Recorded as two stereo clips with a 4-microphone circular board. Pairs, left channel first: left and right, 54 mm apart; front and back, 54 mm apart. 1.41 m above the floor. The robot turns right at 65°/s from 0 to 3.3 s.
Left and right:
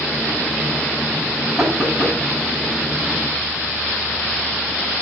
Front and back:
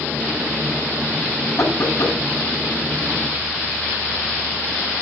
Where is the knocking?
5° right, 8.5 m; by 2.2 s 30° left, 8.5 m.